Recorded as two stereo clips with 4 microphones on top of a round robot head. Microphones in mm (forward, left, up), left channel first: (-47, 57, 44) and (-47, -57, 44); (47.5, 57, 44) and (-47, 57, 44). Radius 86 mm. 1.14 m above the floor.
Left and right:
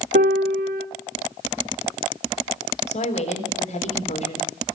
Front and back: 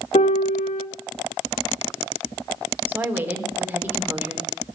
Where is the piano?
55° right, 0.8 m.